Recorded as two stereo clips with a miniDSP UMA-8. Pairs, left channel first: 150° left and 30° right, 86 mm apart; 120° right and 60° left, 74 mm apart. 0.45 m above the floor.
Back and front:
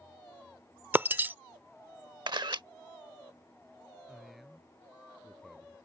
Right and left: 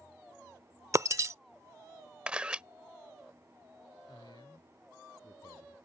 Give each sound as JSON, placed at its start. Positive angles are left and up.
{"t": 0.9, "sound": "breaking glass", "azimuth_deg": 30}
{"t": 2.3, "sound": "a camera shutter", "azimuth_deg": -15}
{"t": 4.1, "sound": "a man speaking", "azimuth_deg": -120}